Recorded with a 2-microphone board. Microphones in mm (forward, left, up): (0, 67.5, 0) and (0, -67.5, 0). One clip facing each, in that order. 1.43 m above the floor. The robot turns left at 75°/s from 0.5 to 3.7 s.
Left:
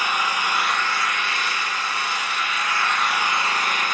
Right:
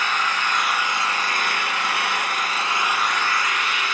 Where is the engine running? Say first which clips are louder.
Even; 10° left, 0.9 m; by 3.9 s 130° left, 0.9 m.